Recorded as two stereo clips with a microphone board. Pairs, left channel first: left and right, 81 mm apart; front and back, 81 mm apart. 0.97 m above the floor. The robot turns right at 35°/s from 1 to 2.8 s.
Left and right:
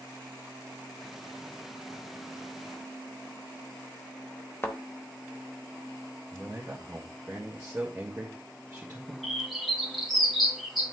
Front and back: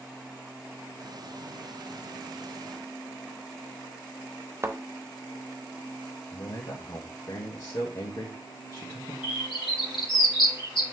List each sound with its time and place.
4.6 s a thud: 135° left, 0.9 m
6.3 s a man speaking: 25° right, 1.6 m
9.2 s a bird: straight ahead, 2 m